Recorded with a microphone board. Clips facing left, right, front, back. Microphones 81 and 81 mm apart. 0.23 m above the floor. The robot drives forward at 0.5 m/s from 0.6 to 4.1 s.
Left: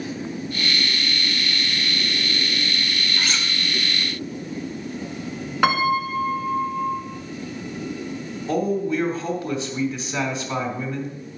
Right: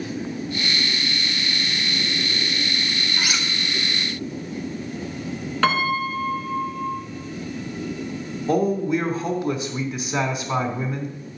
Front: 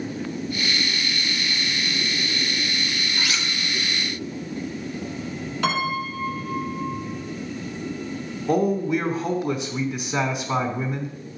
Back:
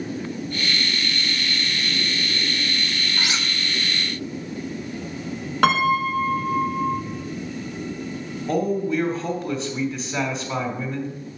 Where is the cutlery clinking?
145° right, 0.5 m; by 3.5 s 160° right, 0.6 m.